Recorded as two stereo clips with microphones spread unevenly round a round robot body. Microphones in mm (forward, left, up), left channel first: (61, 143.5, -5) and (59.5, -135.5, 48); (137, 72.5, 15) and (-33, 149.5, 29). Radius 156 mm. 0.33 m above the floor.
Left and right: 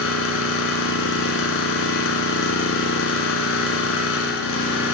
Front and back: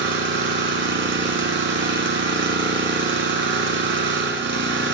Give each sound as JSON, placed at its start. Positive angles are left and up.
{"t": 0.0, "sound": "an engine running", "azimuth_deg": 135, "distance_m": 2.0}